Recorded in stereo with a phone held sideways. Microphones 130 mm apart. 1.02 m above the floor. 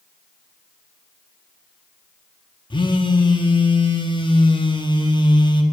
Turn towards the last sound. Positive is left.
turn(degrees=40)  # may be behind; listen again after turning